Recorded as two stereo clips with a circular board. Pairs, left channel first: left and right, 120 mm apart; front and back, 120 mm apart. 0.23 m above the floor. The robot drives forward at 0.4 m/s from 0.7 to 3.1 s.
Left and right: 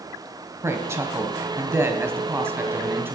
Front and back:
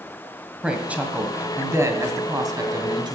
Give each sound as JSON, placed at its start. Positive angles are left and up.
{"t": 0.6, "sound": "a woman speaking", "azimuth_deg": -110, "distance_m": 1.4}